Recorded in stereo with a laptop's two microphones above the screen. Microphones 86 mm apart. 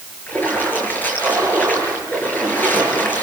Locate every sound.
0.3 s a splash: 25° left (ahead or behind), 6.5 m